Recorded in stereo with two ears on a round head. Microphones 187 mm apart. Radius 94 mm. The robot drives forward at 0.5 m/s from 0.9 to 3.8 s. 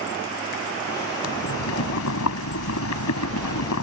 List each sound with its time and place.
1.2 s boiling: 75° left (ahead or behind); by 3.8 s 85° left